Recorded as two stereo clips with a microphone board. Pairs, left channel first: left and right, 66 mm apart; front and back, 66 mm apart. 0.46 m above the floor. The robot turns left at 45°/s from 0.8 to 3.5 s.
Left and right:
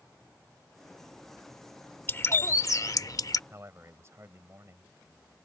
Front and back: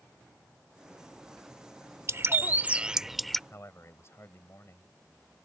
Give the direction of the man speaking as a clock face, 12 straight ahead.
1 o'clock.